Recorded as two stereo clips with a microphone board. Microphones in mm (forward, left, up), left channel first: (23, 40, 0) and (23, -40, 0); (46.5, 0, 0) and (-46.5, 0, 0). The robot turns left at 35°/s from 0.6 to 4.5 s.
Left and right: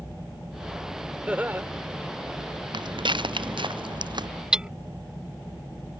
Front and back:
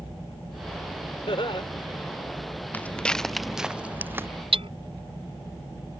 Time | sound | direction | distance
1.3 | laughter | 15° right | ?
2.7 | footsteps | 70° right | ?
4.5 | hammering | 170° right | ?